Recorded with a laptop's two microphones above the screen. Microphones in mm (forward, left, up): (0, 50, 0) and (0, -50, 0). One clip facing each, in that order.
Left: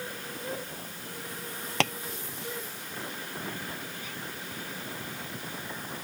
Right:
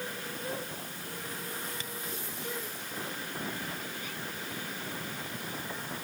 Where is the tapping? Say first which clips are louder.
Left 15 dB; 80° left.